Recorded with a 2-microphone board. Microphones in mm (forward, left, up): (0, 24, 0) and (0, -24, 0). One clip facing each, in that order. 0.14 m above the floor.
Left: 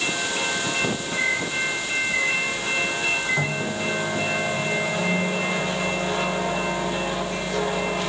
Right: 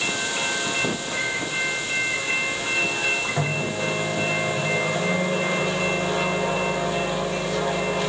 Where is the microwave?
75° right (ahead or behind), 6 m.